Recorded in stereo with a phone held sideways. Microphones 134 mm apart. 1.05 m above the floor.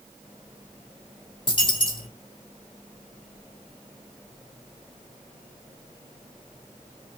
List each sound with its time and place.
1.5 s a dropped coin: 40° left (ahead or behind), 2 m